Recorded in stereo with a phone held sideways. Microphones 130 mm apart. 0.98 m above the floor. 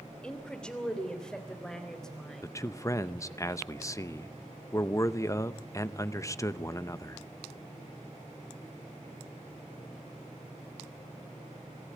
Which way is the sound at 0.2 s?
5° left (ahead or behind).